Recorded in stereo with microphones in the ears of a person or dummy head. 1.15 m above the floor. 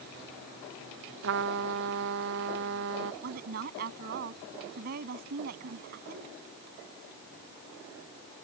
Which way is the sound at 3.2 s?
50° right (ahead or behind).